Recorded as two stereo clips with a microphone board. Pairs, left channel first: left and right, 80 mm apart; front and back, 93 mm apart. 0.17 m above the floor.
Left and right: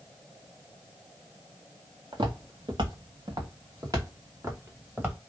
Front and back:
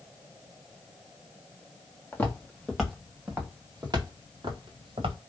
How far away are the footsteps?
About 1.1 m.